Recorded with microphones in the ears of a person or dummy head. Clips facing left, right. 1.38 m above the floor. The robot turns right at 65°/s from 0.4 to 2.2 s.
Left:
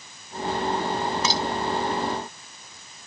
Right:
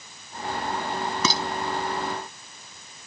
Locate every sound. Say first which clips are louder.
1.2 s dishes clattering: even; 80° right; by 1.4 s 70° right (ahead or behind)